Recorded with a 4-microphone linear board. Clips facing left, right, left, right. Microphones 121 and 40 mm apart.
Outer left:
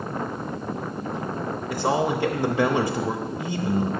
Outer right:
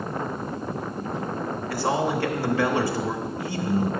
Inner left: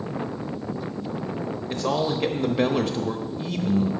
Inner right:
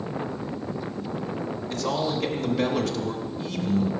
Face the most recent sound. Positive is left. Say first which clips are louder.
# outer left 1 dB, inner left 2 dB
turn(degrees=20)  # may be behind; listen again after turning